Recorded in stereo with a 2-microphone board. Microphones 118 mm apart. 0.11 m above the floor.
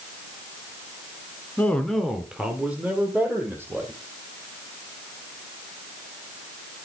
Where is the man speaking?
15° left (ahead or behind), 1.2 m; by 3.9 s 20° right (ahead or behind), 3.5 m.